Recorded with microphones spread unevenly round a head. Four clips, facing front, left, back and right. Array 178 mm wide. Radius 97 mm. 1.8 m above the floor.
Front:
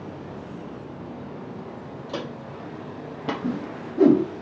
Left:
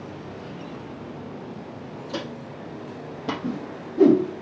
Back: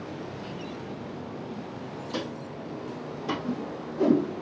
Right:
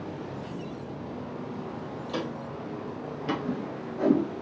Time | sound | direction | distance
2.1 | footsteps | 10° left | 3 m
3.4 | a whoosh | 45° left | 3.5 m